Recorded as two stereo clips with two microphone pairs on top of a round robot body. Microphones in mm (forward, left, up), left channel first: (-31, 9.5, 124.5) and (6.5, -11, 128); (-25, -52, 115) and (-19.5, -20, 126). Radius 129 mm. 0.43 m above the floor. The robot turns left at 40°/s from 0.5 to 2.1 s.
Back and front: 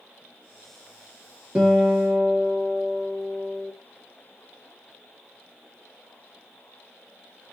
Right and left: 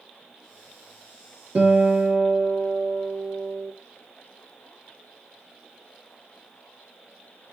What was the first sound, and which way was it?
A guitar, 40° left.